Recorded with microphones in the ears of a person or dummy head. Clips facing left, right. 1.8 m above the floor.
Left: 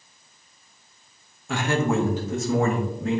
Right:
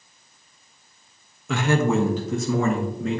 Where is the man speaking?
70° right (ahead or behind), 1.1 m; by 3.2 s 65° right (ahead or behind), 2 m.